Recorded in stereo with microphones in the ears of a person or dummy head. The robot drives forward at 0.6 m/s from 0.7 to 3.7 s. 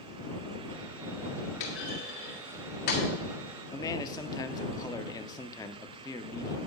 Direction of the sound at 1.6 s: 60° left (ahead or behind).